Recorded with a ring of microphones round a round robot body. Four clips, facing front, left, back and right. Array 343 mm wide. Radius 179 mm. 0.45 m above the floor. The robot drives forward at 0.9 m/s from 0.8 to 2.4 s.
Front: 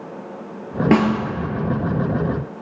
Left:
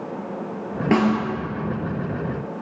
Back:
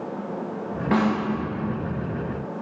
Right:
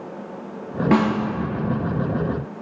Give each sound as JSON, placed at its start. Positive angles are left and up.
{"t": 0.9, "sound": "a snare drum", "azimuth_deg": 5, "distance_m": 2.5}